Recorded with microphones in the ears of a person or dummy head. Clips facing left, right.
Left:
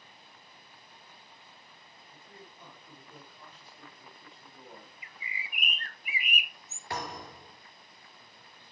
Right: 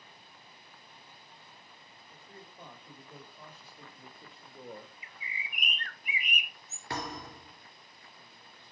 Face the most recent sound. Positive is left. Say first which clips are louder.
# even
turn(degrees=-80)